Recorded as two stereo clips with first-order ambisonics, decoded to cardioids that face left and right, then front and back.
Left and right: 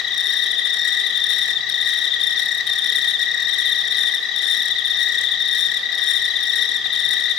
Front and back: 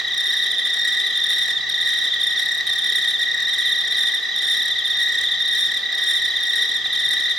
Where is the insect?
110° left, 0.8 m.